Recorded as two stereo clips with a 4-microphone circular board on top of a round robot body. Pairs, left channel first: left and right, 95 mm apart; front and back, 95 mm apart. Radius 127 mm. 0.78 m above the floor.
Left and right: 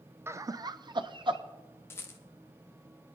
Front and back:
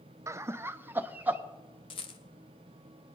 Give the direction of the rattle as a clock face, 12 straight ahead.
11 o'clock.